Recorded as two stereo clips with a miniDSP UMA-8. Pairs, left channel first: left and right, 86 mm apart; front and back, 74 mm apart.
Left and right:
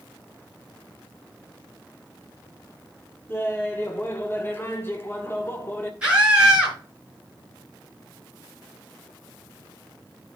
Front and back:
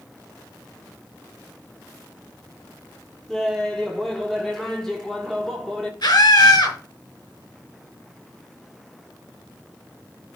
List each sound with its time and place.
3.3 s laughter: 75° left, 1.3 m
6.0 s a scream: 10° right, 5.5 m